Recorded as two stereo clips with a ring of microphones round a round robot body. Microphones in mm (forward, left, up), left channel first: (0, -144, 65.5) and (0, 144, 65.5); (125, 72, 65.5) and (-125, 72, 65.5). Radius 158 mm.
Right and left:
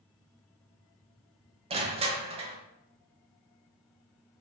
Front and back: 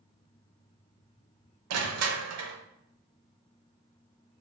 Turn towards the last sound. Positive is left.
turn(degrees=160)